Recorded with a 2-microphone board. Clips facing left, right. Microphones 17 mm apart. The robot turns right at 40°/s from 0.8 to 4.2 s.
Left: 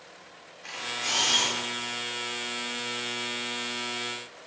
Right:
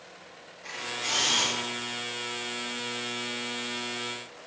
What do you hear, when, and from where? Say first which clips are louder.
0.6 s a camera shutter: left 1 dB; 25° left (ahead or behind), 1.2 m